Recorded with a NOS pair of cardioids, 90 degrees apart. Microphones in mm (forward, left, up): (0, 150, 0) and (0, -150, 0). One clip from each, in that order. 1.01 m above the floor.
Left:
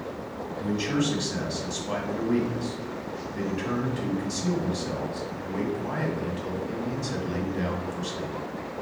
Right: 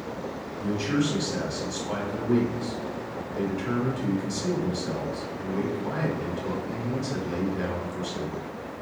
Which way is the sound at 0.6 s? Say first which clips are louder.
Right 1 dB; 20° left.